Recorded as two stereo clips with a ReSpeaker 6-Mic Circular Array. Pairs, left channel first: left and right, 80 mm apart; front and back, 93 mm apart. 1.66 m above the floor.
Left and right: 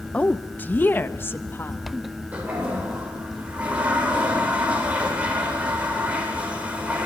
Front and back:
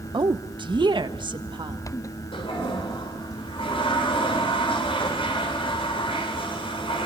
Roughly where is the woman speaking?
Behind.